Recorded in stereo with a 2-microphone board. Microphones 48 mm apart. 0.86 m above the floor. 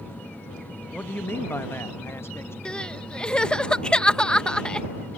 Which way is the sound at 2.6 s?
20° left (ahead or behind).